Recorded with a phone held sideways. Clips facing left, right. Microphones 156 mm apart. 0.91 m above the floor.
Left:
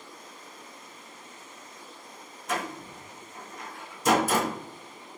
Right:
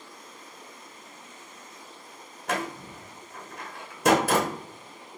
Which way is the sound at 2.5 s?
60° right (ahead or behind).